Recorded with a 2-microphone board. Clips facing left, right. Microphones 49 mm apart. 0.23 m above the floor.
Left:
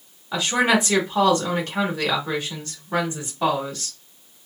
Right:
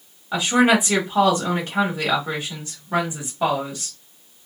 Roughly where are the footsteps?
I don't hear footsteps.